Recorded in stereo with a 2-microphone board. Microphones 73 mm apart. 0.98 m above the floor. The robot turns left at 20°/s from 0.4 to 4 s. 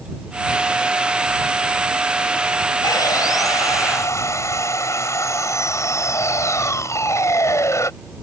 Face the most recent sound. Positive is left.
turn(degrees=45)  # may be behind; listen again after turning